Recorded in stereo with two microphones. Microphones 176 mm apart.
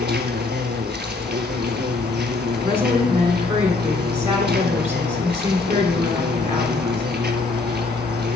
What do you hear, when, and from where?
0.0 s an insect: 75° right (ahead or behind), 0.8 m
2.6 s a woman speaking: 10° right (ahead or behind), 1.4 m